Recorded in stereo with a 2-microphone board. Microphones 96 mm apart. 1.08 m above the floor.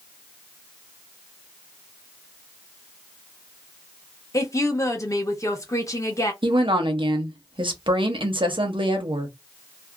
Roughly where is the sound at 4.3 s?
Left.